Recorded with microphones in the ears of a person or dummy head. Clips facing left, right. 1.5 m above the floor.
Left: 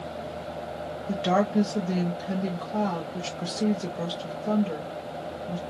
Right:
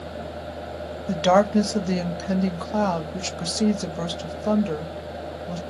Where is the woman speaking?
65° right (ahead or behind), 0.7 m.